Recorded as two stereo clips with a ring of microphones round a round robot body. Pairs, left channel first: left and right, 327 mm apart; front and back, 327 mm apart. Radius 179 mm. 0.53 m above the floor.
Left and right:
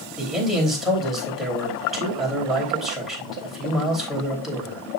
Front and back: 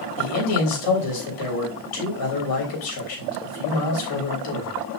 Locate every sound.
0.2 s a man speaking: straight ahead, 3.5 m